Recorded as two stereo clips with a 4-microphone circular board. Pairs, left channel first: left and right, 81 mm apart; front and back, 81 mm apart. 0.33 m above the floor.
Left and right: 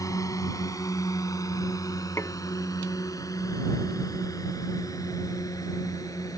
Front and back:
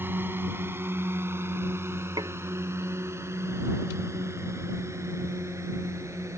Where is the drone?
120° left; by 6.4 s 130° left.